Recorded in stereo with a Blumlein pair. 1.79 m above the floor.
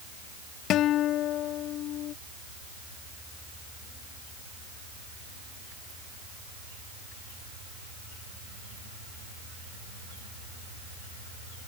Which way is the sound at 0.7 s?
35° left.